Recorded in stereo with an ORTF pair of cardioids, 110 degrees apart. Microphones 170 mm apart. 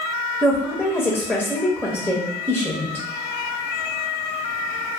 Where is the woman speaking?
5° right, 0.6 m.